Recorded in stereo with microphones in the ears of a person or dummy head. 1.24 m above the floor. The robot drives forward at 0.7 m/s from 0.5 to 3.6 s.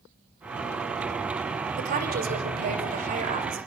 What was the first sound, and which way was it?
A woman speaking, 45° right (ahead or behind).